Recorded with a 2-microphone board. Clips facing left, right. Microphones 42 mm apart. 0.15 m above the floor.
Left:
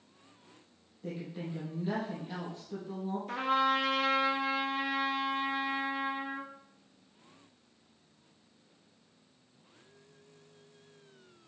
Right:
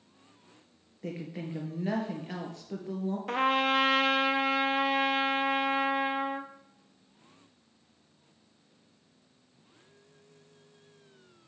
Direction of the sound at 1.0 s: 65° right (ahead or behind).